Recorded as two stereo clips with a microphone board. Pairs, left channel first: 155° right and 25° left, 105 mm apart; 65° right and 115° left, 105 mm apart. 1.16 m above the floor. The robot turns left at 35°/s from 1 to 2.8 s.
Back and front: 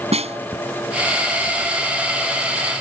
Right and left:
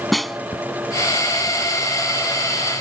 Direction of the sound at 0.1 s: 25° left.